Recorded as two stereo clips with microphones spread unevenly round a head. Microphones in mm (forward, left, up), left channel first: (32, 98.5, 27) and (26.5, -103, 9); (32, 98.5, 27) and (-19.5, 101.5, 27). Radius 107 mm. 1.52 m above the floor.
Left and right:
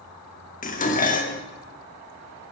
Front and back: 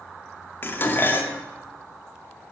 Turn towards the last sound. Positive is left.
turn(degrees=45)